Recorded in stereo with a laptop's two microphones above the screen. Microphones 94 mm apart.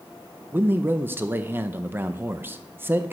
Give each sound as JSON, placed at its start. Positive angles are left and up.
{"t": 0.5, "sound": "a man speaking", "side_deg": -25, "distance_m": 0.6}